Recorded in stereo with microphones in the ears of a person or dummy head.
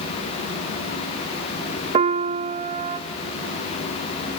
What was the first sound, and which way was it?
A piano, 30° right (ahead or behind).